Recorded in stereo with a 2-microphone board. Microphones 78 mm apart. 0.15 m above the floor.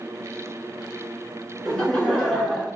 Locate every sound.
1.6 s laughter: 10° left (ahead or behind), 1.5 m